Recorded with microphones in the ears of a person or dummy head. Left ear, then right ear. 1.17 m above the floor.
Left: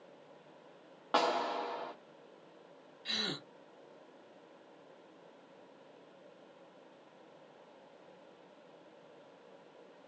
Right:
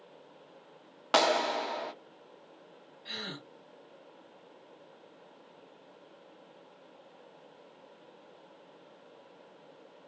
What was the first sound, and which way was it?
A clap, 75° right (ahead or behind).